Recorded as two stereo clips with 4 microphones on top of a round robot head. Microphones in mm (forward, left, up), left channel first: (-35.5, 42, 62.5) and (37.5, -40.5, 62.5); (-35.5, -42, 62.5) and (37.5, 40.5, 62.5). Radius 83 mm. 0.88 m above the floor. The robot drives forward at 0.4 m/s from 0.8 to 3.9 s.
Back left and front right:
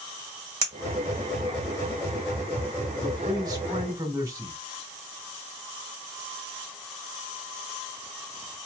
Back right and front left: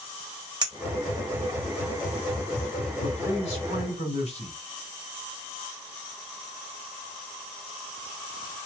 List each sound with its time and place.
0.6 s a clink: straight ahead, 1.5 m; by 1.6 s 5° right, 1.2 m
3.0 s a man speaking: 100° right, 2 m; by 4.5 s 110° right, 2 m